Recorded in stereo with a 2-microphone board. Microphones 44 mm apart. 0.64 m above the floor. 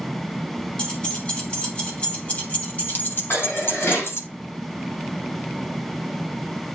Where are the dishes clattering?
65° left (ahead or behind), 4.5 m.